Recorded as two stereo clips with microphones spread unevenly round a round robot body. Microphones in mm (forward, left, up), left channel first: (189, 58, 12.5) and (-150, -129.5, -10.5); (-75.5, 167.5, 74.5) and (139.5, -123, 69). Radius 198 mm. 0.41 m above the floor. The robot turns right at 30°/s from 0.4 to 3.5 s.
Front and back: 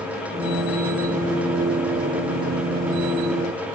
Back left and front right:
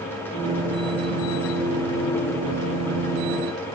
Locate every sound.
Only background noise.